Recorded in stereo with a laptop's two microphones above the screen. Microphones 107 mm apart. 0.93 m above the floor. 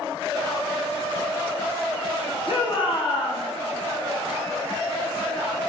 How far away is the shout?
About 1.3 m.